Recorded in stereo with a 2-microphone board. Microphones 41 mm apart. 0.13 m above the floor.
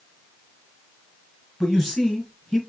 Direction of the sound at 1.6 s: 10° left (ahead or behind).